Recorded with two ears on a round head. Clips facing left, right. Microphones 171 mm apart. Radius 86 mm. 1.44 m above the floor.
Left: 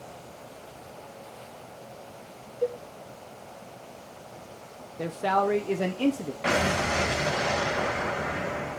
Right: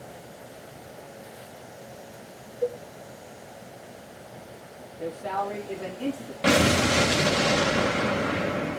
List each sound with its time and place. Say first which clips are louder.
2.6 s a cowbell: even; 35° left (ahead or behind), 1.8 m
5.0 s a man speaking: left 4 dB; 80° left, 0.8 m
6.4 s an explosion: right 6 dB; 40° right (ahead or behind), 0.9 m